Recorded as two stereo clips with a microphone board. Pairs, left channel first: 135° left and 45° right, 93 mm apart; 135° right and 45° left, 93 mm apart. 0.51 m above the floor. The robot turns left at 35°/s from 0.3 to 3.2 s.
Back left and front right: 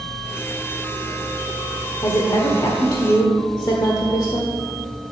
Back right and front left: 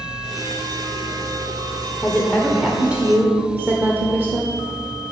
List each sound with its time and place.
2.0 s a woman speaking: 150° left, 1.4 m; by 4.5 s 110° left, 1.4 m